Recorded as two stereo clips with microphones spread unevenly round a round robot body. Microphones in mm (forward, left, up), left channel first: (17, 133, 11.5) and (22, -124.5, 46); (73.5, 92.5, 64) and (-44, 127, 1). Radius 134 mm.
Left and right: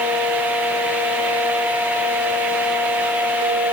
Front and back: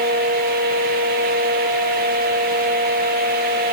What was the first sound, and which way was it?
Only background noise.